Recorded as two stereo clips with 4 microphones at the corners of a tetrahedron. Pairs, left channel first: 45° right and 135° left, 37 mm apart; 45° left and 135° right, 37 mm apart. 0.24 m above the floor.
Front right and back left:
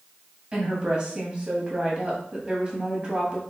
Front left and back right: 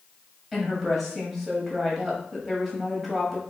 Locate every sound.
0.5 s a woman speaking: 125° left, 1.4 m